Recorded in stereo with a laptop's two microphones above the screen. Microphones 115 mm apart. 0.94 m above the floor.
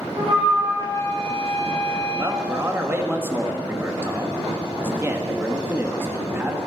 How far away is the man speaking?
About 1.5 m.